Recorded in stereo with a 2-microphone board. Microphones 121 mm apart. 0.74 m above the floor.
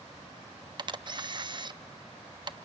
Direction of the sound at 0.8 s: 40° right (ahead or behind).